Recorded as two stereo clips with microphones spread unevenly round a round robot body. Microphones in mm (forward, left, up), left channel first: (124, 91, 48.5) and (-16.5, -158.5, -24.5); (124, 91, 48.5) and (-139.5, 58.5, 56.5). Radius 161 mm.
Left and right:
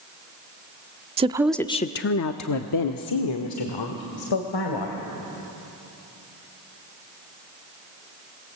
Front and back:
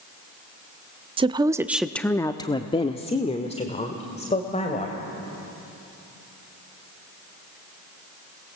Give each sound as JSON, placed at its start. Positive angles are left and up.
{"t": 1.2, "sound": "a woman speaking", "azimuth_deg": -115, "distance_m": 0.7}